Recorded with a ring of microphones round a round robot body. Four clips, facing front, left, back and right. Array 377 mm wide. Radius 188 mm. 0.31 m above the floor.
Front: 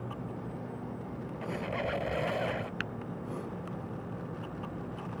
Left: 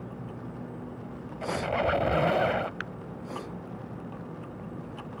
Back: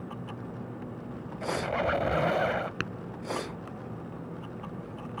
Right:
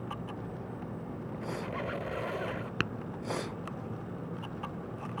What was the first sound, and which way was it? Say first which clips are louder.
A squeak: left 10 dB, back 6 dB; 115° left.